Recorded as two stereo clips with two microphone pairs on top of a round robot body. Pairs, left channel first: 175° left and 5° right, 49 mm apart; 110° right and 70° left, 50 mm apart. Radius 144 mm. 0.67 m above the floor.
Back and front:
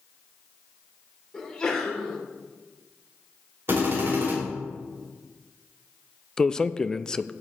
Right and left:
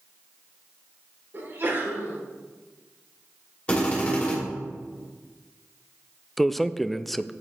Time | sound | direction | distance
1.3 | a sneeze | 110° left | 3 m
3.7 | a drill | 40° right | 3 m
6.4 | a man speaking | 165° left | 0.5 m